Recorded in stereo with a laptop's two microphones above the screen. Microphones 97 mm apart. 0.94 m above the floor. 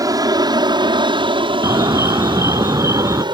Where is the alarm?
30° right (ahead or behind).